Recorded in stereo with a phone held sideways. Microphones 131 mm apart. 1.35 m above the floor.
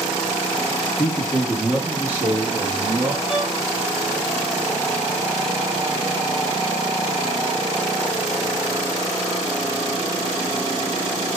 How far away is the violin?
About 2.0 m.